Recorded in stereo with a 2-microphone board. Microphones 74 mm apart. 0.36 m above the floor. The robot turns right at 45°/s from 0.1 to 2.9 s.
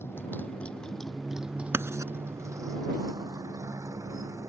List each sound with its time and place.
0.0 s a motorcycle: 30° left (ahead or behind); by 4.5 s 45° right (ahead or behind)
1.7 s writing: 35° right (ahead or behind); by 2.1 s 50° right (ahead or behind)